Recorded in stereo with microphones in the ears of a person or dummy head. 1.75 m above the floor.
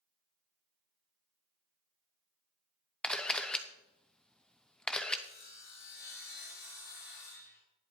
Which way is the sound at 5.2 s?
40° left (ahead or behind).